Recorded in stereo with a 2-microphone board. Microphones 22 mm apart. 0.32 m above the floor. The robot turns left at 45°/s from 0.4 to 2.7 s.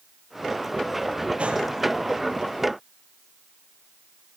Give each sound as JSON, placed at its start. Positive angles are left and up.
{"t": 1.4, "sound": "a gunshot", "side_deg": -60, "distance_m": 6.5}